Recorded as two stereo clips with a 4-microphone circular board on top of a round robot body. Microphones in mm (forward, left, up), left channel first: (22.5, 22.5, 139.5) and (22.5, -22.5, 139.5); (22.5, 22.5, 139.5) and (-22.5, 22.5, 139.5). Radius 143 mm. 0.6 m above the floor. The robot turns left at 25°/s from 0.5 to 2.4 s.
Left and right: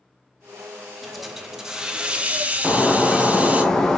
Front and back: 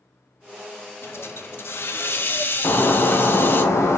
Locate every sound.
1.0 s a hiss: 5° left, 0.8 m; by 3.6 s 30° right, 0.8 m
2.6 s breaking glass: 10° left, 0.8 m